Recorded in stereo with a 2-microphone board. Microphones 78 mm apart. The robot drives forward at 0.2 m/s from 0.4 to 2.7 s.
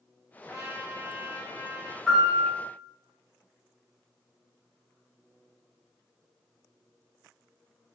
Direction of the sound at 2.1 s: Centre (ahead or behind).